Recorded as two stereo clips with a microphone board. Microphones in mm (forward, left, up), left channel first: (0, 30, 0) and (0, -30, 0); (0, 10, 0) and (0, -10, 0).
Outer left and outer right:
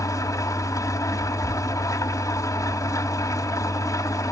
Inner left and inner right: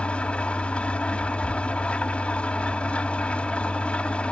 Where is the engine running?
65° left (ahead or behind), 2.5 m.